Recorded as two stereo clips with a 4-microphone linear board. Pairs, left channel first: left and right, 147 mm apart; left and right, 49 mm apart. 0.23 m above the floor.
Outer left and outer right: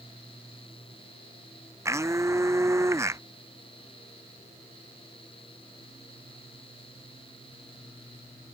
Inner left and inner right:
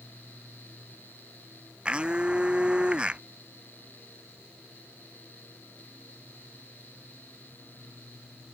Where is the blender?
20° right (ahead or behind).